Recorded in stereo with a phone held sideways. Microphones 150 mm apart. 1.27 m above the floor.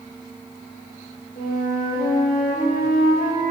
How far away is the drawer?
I don't hear a drawer.